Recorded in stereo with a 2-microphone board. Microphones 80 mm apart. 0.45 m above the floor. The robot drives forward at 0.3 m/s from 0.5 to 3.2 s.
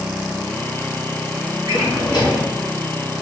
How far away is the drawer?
About 1.5 m.